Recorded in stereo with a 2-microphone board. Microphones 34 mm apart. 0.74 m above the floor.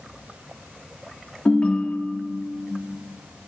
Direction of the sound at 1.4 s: 40° left (ahead or behind).